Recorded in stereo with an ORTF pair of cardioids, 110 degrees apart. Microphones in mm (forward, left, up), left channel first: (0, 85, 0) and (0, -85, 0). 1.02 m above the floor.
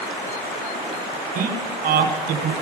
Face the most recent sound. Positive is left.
turn(degrees=-55)